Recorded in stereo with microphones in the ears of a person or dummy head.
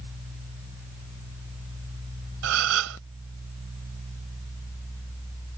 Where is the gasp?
80° right.